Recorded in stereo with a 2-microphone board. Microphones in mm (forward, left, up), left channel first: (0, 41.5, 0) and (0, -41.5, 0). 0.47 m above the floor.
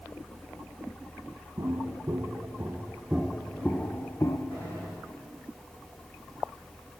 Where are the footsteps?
55° right (ahead or behind), 1.6 m; by 4.4 s 35° left (ahead or behind), 1.3 m.